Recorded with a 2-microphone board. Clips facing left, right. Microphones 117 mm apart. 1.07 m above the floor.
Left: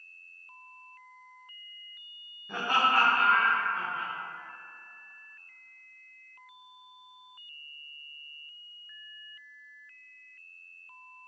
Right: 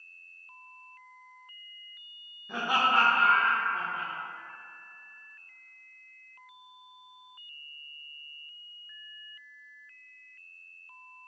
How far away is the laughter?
About 0.5 m.